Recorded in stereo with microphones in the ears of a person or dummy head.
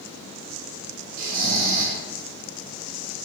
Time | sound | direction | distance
1.2 | snoring | 45° right (ahead or behind) | 0.7 m